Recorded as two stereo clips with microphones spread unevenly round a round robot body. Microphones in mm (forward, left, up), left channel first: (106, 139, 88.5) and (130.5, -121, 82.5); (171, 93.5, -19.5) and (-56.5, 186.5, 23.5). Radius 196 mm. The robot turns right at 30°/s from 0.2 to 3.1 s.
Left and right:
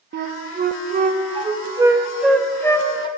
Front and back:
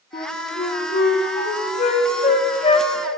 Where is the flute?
60° right, 0.7 m; by 3.1 s 30° left, 0.7 m.